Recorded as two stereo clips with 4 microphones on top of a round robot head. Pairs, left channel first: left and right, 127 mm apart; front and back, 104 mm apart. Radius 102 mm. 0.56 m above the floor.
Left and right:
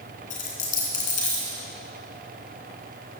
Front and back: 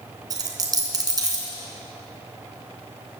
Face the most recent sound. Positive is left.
turn(degrees=125)